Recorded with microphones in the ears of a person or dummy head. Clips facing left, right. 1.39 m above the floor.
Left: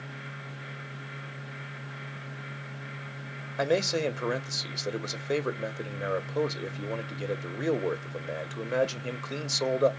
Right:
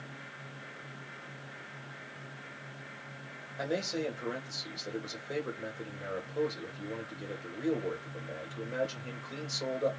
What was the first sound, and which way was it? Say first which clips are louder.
A man speaking: left 7 dB; 80° left.